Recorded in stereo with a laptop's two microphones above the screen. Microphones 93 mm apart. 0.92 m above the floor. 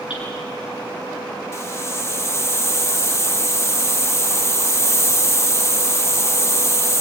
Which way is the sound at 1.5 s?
30° left (ahead or behind).